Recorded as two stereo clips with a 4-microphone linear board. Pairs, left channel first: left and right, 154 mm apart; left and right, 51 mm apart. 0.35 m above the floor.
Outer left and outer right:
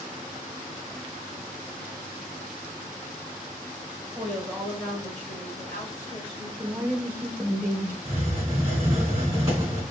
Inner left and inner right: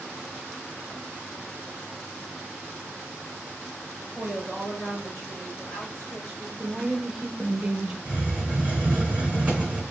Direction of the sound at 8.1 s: 20° right (ahead or behind).